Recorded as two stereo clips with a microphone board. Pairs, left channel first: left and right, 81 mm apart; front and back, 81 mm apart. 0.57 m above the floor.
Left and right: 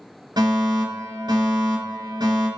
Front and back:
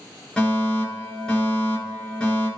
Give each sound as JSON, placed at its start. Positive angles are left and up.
{"t": 0.4, "sound": "a fire alarm", "azimuth_deg": -75, "distance_m": 4.0}